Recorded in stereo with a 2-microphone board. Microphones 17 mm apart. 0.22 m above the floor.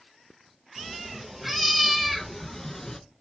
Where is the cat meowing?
15° right (ahead or behind), 1.7 m; by 3.0 s 30° left (ahead or behind), 0.8 m.